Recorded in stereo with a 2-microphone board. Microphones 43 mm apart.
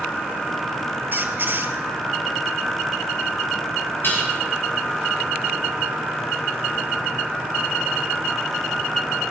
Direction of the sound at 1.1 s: 50° right (ahead or behind).